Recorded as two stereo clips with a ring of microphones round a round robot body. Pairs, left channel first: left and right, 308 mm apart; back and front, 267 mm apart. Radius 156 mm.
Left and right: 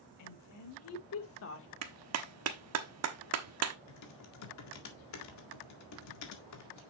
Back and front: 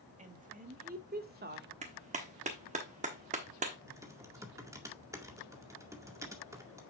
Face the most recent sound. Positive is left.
turn(degrees=75)